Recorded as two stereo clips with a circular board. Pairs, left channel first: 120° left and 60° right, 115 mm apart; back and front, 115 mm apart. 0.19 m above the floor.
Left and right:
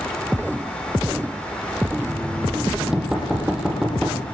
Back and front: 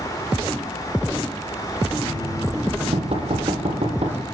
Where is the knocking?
20° left, 6.5 m.